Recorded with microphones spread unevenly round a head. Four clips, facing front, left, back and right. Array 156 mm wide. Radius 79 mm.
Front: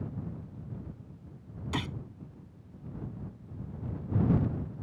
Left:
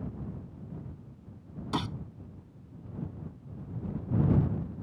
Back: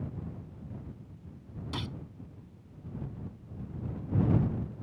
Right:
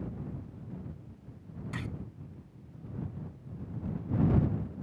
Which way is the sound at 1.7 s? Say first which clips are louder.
Left 9 dB, front 4 dB; 70° left.